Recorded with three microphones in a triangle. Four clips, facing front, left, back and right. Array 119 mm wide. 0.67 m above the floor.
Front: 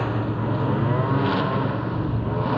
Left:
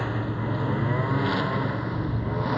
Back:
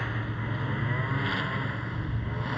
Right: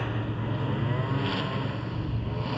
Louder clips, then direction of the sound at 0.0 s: Left 3 dB, front 9 dB; 10° left.